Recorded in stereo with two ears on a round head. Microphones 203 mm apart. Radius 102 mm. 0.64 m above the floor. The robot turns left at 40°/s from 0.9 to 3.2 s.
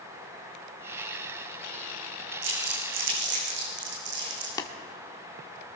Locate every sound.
2.4 s crumpling: 85° right, 7 m; by 4.5 s 50° right (ahead or behind), 7 m
4.6 s tapping: 20° left (ahead or behind), 1.5 m